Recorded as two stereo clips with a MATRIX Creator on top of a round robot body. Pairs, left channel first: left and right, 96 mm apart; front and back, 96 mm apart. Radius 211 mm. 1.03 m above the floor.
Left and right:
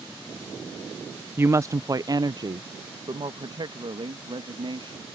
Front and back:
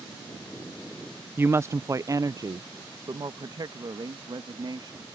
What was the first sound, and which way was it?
A woman speaking, 135° right.